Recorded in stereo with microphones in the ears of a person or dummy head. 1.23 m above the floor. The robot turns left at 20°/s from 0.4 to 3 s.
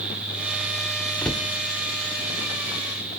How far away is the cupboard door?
About 0.6 m.